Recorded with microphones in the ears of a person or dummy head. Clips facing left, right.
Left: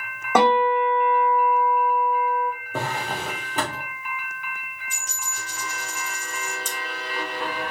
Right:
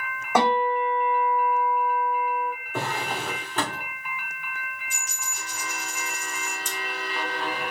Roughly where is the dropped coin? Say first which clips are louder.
Left 2 dB; left.